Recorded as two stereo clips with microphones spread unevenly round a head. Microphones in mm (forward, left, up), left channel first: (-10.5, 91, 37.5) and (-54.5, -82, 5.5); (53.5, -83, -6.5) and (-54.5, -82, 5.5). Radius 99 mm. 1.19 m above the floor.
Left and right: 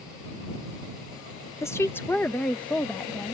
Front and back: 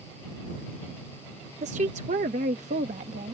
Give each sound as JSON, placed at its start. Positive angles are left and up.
{"t": 1.6, "sound": "a woman speaking", "azimuth_deg": 155}